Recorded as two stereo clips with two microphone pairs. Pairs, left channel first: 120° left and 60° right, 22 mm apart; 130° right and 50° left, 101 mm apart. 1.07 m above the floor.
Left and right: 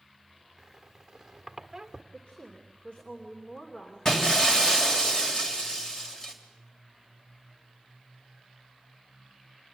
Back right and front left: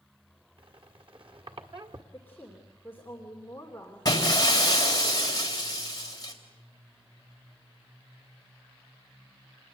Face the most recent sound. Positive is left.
turn(degrees=180)